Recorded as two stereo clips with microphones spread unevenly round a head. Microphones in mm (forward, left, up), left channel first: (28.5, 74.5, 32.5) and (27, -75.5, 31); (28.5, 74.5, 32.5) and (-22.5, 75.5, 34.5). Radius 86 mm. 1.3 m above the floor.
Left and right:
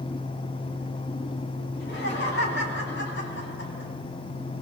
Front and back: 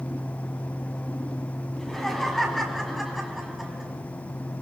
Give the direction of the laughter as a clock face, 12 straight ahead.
9 o'clock.